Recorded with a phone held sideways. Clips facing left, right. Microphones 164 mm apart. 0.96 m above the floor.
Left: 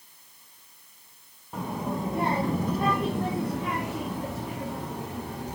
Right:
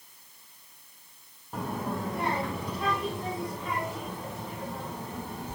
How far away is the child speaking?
About 0.9 m.